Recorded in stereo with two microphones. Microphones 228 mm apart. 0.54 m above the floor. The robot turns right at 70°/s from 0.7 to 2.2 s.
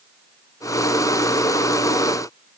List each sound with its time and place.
Only background noise.